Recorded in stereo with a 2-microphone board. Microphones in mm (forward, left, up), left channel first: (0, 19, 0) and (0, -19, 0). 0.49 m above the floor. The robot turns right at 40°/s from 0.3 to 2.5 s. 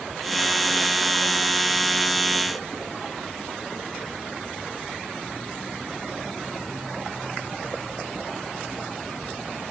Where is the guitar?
No guitar in this recording.